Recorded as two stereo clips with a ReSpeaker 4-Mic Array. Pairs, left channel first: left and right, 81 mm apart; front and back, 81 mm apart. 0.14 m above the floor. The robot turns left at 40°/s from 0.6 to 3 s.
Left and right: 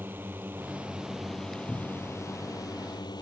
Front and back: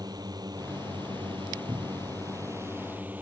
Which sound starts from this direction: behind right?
A drone, at 0.0 s.